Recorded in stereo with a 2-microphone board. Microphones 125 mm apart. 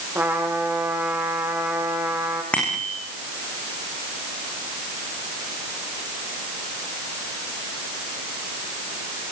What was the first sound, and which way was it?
A trumpet, 15° right (ahead or behind).